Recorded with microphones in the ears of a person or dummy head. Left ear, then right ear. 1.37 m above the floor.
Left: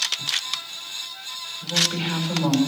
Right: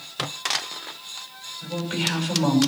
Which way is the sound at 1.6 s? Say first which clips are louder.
Left 5 dB; 5° right (ahead or behind).